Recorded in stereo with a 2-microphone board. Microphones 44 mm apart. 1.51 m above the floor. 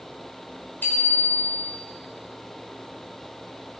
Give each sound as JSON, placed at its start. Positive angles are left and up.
{"t": 0.8, "sound": "a bicycle bell", "side_deg": 50, "distance_m": 4.5}